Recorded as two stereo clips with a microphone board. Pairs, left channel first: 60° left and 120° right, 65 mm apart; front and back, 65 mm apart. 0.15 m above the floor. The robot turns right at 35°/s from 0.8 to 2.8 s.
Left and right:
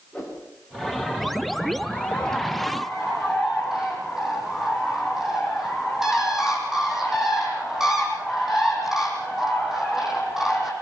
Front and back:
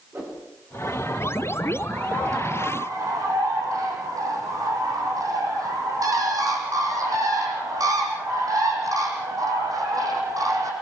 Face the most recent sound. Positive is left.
turn(degrees=160)